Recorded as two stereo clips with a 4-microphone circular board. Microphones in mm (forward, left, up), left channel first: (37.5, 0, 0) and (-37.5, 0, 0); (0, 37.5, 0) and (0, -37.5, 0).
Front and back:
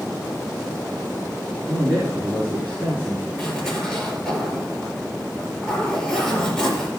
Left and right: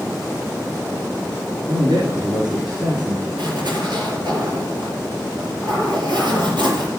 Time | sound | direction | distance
1.7 | a man speaking | 115° right | 4.5 m
3.4 | a zipper | 85° right | 5 m